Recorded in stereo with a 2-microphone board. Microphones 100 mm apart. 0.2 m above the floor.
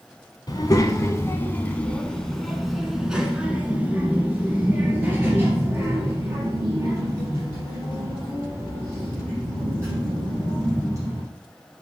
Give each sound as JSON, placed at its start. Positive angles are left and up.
{"t": 0.5, "sound": "a child speaking", "side_deg": 45, "distance_m": 1.2}